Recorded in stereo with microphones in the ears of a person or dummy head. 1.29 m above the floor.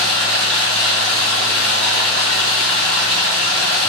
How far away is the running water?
About 1.7 m.